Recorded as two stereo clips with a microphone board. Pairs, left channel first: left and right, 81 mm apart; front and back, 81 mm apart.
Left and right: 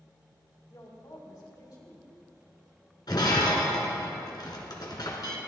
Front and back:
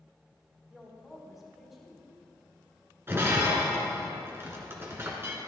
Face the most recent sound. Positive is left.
turn(degrees=120)